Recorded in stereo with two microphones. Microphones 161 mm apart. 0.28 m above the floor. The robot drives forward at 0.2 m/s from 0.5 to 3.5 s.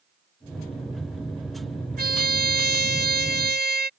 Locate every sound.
2.0 s a trumpet: 80° right; by 3.9 s 85° right